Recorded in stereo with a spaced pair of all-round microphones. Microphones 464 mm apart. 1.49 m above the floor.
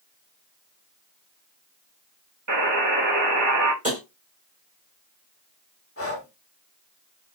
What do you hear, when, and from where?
2.5 s a buzzer: 40° right (ahead or behind), 2.0 m
3.8 s tapping: 15° right (ahead or behind), 3.5 m
6.0 s breathing: 30° left (ahead or behind), 1.3 m